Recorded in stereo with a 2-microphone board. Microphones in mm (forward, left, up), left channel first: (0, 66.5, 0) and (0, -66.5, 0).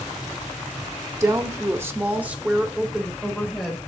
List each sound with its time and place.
1.2 s a woman speaking: 20° right (ahead or behind), 1.0 m; by 3.9 s 5° left (ahead or behind), 1.7 m